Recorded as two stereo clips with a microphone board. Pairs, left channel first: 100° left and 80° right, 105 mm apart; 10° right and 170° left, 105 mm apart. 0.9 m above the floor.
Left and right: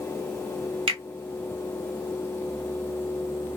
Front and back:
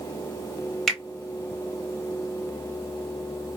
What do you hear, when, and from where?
0.9 s a finger snap: 100° right, 1.3 m